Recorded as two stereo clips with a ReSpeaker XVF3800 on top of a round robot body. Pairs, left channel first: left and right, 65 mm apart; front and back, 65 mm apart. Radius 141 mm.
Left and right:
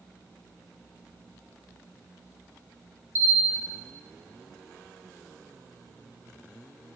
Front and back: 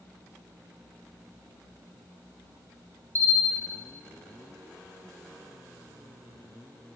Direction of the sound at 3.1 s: 40° right.